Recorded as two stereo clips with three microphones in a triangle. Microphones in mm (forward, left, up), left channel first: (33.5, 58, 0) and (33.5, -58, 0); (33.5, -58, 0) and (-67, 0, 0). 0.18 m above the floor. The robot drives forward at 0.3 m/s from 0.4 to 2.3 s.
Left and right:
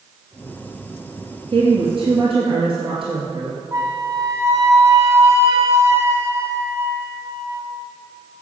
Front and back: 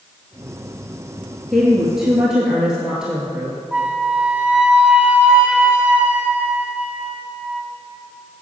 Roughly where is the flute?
Behind right.